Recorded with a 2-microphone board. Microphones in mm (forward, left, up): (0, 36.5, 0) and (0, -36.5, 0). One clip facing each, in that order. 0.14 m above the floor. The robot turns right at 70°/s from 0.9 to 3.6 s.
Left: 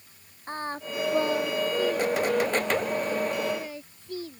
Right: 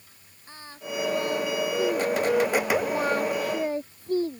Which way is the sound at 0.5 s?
45° left (ahead or behind).